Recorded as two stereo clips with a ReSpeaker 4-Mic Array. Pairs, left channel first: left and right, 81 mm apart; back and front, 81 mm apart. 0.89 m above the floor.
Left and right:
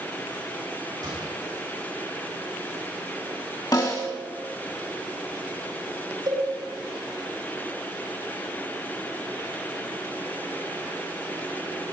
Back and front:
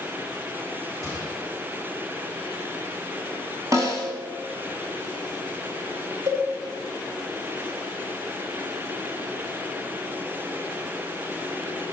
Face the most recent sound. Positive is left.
turn(degrees=-55)